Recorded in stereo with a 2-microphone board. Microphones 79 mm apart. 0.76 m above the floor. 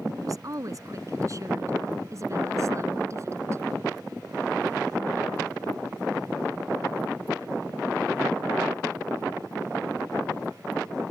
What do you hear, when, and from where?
0.2 s a woman speaking: 45° right (ahead or behind); by 3.6 s 35° right (ahead or behind)